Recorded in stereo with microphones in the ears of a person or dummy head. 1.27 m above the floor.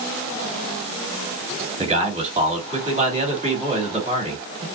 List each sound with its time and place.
1.8 s a man speaking: 35° right (ahead or behind), 2.5 m